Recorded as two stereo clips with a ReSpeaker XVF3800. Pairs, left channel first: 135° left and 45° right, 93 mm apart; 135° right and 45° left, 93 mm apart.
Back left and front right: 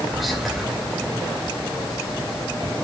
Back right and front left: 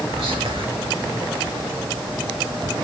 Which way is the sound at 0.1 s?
45° left.